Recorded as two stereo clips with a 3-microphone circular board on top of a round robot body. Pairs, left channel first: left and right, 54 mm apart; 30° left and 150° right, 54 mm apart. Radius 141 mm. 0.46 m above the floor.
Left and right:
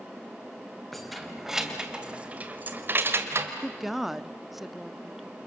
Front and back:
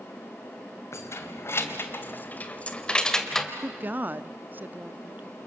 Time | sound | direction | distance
0.9 | keys jangling | 5° left | 2.5 m
3.6 | a woman speaking | 175° right | 0.9 m